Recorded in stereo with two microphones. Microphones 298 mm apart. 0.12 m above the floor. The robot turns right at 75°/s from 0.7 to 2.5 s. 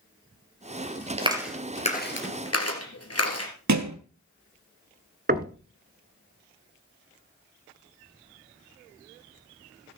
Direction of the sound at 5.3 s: 30° right (ahead or behind).